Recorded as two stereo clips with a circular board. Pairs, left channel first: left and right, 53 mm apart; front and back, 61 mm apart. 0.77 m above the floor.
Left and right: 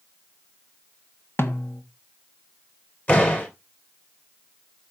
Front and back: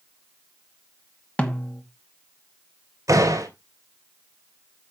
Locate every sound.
1.4 s a snare drum: 65° left, 1.3 m
3.1 s a door slam: 150° left, 3 m